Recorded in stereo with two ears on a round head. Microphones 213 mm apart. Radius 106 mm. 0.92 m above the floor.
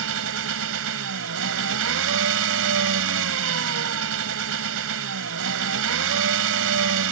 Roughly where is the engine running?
Right.